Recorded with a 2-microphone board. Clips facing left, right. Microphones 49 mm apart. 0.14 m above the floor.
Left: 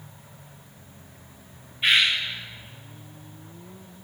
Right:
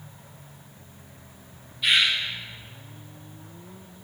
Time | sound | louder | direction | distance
1.8 | a bird | left 1 dB | 35° left (ahead or behind) | 7 m